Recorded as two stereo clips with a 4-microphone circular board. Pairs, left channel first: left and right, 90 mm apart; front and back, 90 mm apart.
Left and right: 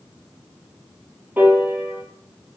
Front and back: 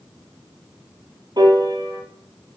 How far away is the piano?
About 1.6 m.